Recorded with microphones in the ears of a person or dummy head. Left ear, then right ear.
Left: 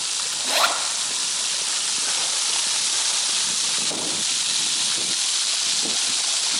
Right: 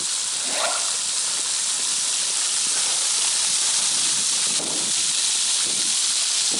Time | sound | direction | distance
0.3 | a zipper | 30° left (ahead or behind) | 7.5 m